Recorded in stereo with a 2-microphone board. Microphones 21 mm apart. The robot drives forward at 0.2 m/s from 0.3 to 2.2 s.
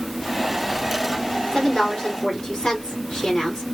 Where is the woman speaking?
45° left (ahead or behind), 2 m.